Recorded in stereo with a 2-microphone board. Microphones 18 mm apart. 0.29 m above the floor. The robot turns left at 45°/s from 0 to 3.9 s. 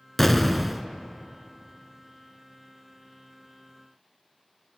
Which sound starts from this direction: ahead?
An explosion, at 0.2 s.